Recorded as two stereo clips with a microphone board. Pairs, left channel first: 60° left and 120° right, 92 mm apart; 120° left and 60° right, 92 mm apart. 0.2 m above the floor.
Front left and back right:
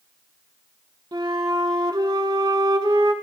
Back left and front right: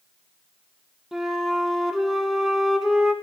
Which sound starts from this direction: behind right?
A flute, at 1.1 s.